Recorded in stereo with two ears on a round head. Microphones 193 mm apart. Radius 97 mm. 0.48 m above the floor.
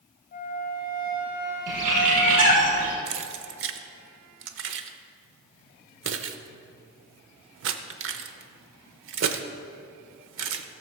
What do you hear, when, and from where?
0.3 s a flute: 40° left (ahead or behind), 2.5 m
1.7 s a bird: 75° right (ahead or behind), 3.5 m
3.1 s keys jangling: 60° right (ahead or behind), 0.8 m